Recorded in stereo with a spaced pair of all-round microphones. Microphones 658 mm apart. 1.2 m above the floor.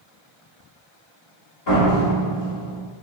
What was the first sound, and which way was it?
A door slam, 85° left.